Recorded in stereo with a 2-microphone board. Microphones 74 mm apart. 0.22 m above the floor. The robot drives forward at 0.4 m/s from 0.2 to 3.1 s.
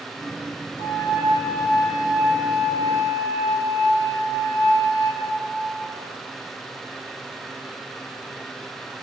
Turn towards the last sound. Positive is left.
turn(degrees=50)  # may be behind; listen again after turning